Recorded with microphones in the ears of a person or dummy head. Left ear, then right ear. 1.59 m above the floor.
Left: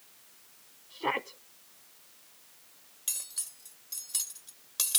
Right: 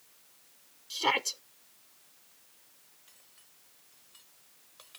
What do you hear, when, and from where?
0.9 s a shout: 80° right
3.1 s cutlery clinking: 80° left